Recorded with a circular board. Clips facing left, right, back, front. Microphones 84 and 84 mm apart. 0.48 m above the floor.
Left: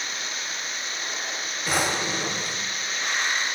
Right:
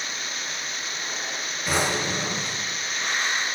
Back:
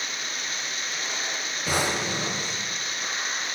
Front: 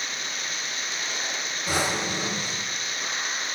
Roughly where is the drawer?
Behind.